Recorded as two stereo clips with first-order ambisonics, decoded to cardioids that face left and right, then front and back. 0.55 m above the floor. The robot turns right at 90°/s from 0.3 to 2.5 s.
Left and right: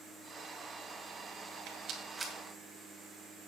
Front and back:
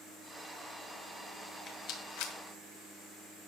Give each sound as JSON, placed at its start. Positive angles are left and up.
{"t": 1.7, "sound": "a rattle", "azimuth_deg": -60, "distance_m": 2.0}